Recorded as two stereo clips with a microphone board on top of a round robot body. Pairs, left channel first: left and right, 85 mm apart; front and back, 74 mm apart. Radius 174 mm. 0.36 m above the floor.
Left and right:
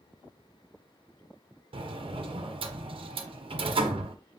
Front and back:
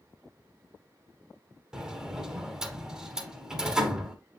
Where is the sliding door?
100° right, 0.9 m.